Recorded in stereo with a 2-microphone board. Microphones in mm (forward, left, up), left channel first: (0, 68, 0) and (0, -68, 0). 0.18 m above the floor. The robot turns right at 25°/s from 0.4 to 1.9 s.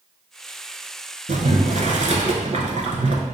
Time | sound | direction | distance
1.3 | boiling | 70° right (ahead or behind) | 0.6 m